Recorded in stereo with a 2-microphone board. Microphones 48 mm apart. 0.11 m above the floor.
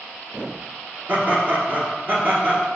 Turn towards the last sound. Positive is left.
turn(degrees=-40)  # may be behind; listen again after turning